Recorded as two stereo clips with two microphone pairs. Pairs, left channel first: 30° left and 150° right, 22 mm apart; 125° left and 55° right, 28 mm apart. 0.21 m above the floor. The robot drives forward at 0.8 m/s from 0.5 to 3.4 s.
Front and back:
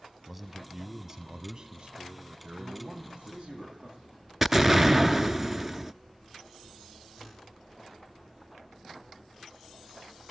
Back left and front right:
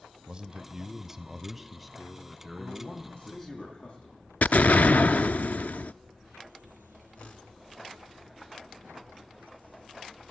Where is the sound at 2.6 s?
170° left, 9 m.